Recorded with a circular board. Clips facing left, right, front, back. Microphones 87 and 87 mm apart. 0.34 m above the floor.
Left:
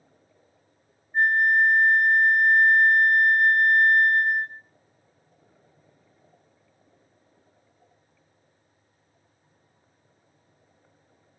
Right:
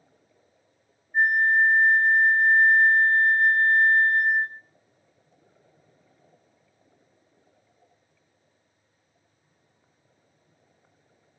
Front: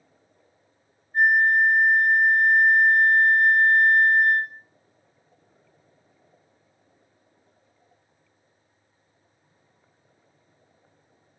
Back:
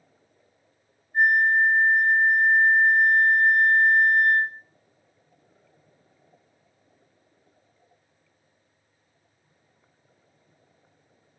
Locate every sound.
1.1 s a flute: 10° right, 2 m